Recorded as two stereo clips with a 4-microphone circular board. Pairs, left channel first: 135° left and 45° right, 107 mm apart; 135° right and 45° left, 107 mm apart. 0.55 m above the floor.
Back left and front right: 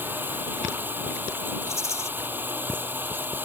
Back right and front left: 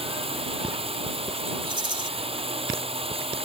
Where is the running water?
25° left.